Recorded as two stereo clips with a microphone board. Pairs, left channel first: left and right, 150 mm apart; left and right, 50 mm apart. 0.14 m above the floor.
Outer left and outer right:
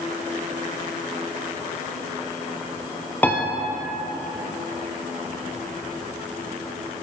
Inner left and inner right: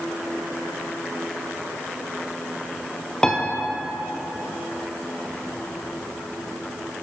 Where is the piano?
10° left (ahead or behind), 1.2 m.